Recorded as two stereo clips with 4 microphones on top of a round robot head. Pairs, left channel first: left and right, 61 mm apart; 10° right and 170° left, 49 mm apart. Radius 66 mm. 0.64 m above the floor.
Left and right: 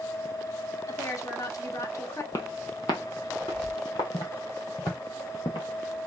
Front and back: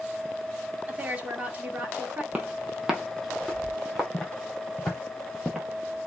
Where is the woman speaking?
115° left, 1.5 m.